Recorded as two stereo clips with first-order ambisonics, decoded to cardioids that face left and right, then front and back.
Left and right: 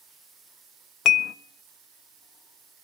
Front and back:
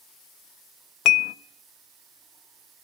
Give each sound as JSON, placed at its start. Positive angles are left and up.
{"t": 1.1, "sound": "dishes clattering", "azimuth_deg": 40, "distance_m": 0.7}